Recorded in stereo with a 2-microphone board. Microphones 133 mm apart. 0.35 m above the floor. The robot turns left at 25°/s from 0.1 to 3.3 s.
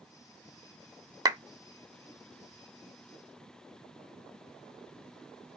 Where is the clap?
25° right (ahead or behind), 0.6 m.